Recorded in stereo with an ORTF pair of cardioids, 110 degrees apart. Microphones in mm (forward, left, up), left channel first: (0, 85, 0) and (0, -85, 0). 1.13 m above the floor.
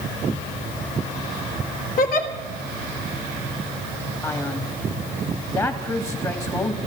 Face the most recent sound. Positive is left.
turn(degrees=15)